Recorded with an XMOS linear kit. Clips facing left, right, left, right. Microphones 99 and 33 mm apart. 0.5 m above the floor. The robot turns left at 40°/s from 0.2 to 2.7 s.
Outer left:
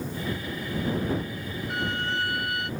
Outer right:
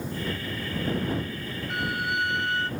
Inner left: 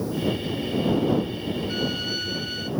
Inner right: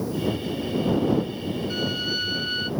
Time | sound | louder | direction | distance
1.7 | a violin | outer right 1 dB, inner right 2 dB | 5° left | ?